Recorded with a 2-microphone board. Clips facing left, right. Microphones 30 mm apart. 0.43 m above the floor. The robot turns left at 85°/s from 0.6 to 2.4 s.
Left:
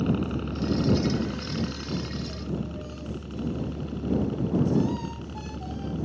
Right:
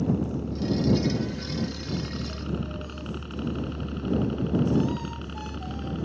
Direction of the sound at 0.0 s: 45° left (ahead or behind).